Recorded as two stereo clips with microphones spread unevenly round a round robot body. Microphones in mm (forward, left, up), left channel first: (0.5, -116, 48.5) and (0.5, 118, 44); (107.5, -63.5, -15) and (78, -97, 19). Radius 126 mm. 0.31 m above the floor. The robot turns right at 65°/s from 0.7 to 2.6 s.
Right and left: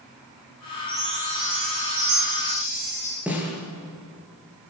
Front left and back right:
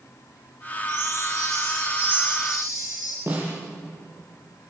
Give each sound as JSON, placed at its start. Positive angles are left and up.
{"t": 0.9, "sound": "a chime", "azimuth_deg": 10, "distance_m": 9.0}
{"t": 3.3, "sound": "a snare drum", "azimuth_deg": 175, "distance_m": 6.5}